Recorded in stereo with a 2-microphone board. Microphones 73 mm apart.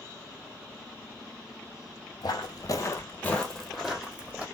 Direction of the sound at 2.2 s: 70° left (ahead or behind).